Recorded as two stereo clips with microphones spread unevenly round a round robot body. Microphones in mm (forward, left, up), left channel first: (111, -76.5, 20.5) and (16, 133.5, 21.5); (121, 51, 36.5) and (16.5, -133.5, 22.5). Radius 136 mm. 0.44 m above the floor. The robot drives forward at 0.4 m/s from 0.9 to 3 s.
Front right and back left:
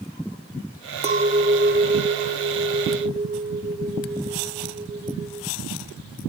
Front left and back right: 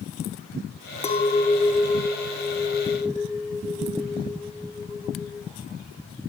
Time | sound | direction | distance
1.0 | a clink | 95° left | 0.8 m